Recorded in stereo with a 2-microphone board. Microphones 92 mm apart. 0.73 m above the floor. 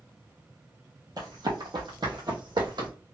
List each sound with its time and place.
1.2 s running footsteps: 50° right (ahead or behind), 1.1 m; by 2.9 s 60° right (ahead or behind), 1.6 m